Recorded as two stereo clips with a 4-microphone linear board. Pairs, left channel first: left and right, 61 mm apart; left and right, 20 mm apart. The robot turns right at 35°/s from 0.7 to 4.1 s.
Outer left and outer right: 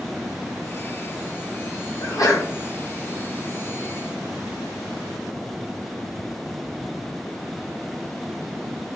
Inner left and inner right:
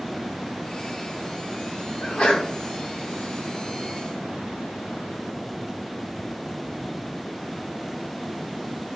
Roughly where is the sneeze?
Left.